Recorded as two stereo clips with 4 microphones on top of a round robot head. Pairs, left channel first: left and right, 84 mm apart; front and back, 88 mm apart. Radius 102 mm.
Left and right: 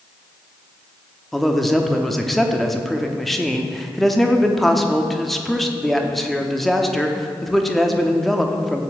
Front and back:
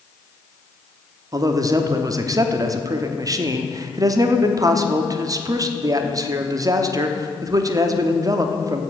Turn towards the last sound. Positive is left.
turn(degrees=175)